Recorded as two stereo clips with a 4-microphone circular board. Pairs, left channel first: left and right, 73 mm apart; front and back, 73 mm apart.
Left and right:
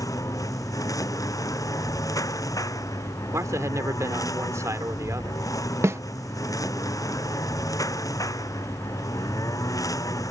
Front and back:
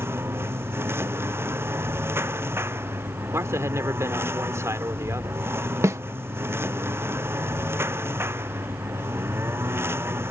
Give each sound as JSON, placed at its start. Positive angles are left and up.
{"t": 0.0, "sound": "a lawn mower", "azimuth_deg": 125}
{"t": 3.3, "sound": "a man speaking", "azimuth_deg": -135}
{"t": 5.8, "sound": "a snare drum", "azimuth_deg": -135}